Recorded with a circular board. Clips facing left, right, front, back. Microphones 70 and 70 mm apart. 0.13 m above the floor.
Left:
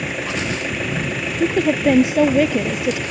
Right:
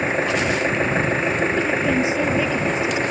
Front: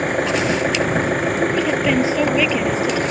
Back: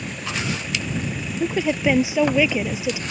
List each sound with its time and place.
0.0 s an engine running: 30° right
1.4 s a woman speaking: 105° left